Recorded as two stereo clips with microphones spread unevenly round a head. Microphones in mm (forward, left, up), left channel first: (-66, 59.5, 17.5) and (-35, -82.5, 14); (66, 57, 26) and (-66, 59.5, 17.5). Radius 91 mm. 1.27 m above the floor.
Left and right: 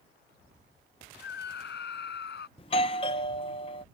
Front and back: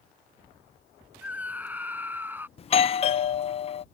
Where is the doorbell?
40° left.